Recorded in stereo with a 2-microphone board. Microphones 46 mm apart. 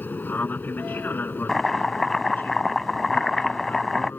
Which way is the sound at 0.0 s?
40° left (ahead or behind).